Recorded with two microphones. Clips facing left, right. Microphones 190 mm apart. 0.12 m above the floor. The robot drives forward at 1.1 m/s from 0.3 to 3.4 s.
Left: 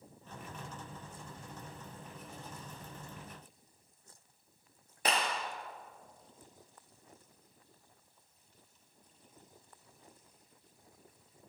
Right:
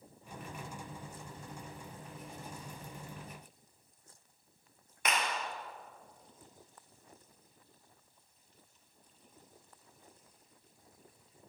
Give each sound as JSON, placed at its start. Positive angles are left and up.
{"t": 5.0, "sound": "a clap", "side_deg": 35, "distance_m": 2.5}